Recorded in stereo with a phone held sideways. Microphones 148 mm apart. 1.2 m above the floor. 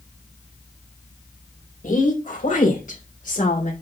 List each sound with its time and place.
1.8 s a woman speaking: 65° left (ahead or behind), 4 m